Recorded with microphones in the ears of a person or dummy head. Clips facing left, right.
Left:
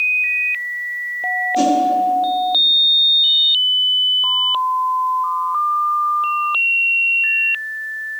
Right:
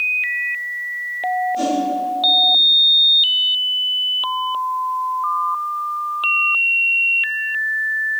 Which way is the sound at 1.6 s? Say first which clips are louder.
Left 8 dB; 75° left (ahead or behind).